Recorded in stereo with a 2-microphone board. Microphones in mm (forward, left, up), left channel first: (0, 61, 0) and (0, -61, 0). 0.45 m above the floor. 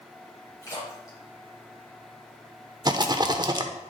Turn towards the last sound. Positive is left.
turn(degrees=-35)  # may be behind; listen again after turning